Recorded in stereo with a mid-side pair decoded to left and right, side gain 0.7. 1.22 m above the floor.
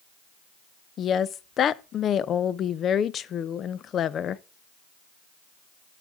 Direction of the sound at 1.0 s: 40° left.